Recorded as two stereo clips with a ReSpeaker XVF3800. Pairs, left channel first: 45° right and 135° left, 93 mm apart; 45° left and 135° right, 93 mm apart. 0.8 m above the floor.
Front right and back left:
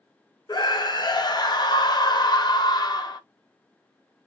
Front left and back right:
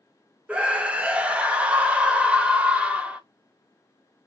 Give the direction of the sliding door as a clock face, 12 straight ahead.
No sliding door in this recording.